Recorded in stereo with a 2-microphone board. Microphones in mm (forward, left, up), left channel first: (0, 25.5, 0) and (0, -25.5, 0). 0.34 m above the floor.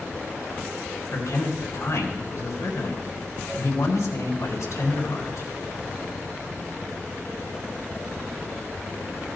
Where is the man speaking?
70° left (ahead or behind), 3.5 m.